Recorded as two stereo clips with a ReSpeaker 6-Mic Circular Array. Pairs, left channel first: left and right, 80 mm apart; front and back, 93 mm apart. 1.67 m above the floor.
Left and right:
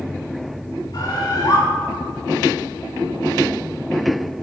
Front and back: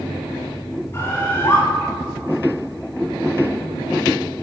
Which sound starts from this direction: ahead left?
A bird, at 0.9 s.